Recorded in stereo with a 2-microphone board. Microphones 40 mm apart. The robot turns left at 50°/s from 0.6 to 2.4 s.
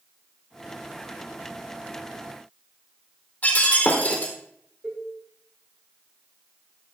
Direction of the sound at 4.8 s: 15° right (ahead or behind).